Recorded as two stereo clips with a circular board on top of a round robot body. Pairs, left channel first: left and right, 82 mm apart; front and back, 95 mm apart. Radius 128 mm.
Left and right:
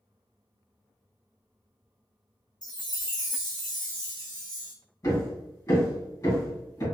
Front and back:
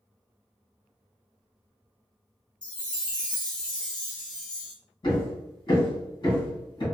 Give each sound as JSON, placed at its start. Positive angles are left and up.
{"t": 2.6, "sound": "a chime", "azimuth_deg": 80, "distance_m": 1.2}
{"t": 5.0, "sound": "hammering", "azimuth_deg": 45, "distance_m": 2.0}